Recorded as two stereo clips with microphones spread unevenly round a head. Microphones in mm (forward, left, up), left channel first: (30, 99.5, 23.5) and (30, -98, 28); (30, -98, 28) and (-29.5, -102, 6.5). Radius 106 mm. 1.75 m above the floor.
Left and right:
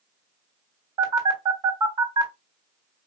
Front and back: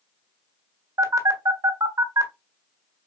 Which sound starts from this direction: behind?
A phone buzzing, at 1.0 s.